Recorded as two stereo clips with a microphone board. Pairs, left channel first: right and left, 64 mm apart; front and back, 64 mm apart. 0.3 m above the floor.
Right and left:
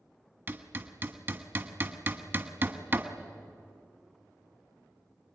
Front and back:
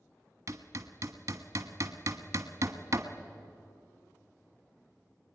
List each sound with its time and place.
0.5 s hammering: 140° left, 1.5 m